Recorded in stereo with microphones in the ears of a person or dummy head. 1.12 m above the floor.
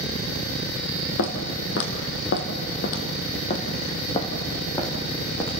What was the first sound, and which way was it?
Footsteps, 65° left (ahead or behind).